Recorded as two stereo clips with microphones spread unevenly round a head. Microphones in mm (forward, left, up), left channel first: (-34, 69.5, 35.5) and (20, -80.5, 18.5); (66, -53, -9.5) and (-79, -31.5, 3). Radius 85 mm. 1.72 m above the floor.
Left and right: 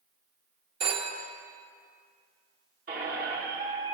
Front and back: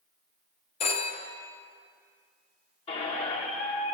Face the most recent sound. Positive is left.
turn(degrees=-45)